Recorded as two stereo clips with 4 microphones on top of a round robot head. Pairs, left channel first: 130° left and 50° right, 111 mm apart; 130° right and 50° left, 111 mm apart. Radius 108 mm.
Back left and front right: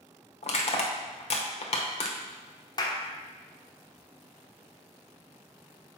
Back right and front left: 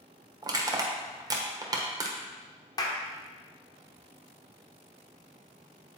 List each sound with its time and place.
0.4 s crushing: 110° left, 1.0 m
2.8 s a clap: 175° left, 1.0 m